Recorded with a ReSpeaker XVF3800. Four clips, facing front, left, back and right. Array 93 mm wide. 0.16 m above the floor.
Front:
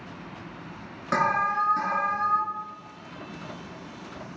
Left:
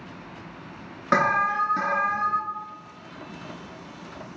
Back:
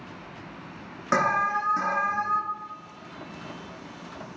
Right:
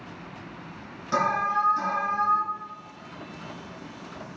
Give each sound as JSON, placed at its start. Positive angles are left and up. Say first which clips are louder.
{"t": 1.1, "sound": "an alarm", "louder": "left 3 dB, even", "azimuth_deg": 105, "distance_m": 1.7}